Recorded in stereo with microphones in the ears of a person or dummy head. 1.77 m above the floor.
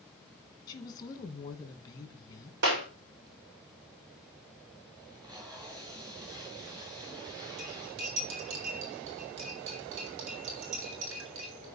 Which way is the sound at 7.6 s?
70° right (ahead or behind).